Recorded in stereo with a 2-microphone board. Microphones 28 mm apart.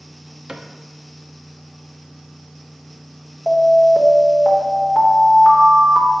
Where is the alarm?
25° left (ahead or behind), 1.1 m.